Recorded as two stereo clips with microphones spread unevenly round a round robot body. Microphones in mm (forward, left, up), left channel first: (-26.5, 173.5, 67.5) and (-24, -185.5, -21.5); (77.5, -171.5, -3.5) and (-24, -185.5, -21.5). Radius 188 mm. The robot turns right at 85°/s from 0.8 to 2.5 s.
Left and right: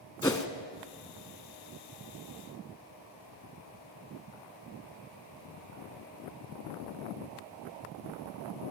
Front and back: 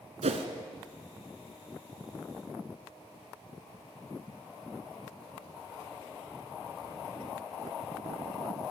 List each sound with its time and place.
0.2 s a whoosh: 165° left, 1.1 m